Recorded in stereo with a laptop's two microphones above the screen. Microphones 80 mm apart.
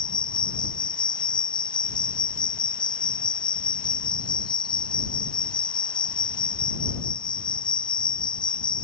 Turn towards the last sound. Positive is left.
turn(degrees=80)